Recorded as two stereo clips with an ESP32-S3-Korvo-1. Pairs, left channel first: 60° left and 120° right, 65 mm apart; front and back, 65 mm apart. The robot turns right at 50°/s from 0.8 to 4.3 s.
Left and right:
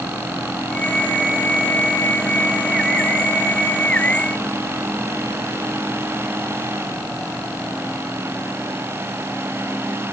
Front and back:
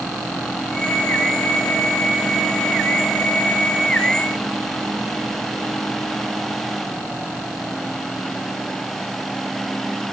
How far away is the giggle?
No giggle in this recording.